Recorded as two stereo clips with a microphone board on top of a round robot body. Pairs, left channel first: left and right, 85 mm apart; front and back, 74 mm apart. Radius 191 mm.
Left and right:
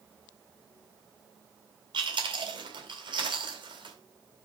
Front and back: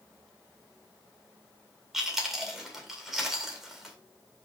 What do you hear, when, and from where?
1.9 s chewing: 95° right, 3.5 m